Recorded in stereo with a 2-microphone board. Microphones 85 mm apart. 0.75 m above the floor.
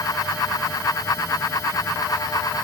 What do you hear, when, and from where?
Only background noise.